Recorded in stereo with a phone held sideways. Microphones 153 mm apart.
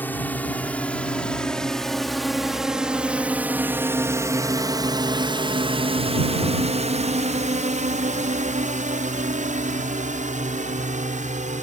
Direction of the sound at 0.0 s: 10° left (ahead or behind).